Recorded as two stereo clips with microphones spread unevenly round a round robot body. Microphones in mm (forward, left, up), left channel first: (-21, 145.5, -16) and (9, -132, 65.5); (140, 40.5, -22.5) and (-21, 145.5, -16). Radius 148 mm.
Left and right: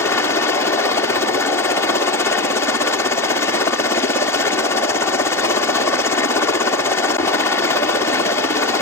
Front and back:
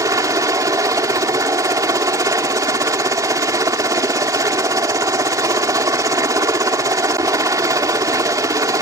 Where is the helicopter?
100° left.